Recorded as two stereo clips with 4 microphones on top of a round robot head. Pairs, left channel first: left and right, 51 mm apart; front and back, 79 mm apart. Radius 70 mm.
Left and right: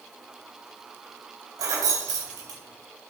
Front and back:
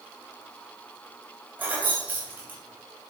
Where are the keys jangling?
110° right, 2 m.